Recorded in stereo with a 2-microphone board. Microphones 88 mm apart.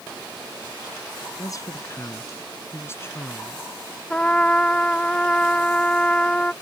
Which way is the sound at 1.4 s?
40° left (ahead or behind).